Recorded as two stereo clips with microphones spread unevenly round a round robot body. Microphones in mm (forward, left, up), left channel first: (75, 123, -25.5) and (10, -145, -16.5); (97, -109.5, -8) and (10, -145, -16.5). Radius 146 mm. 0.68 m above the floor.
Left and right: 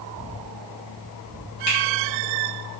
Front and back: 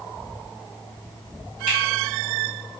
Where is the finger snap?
85° left, 1.7 m.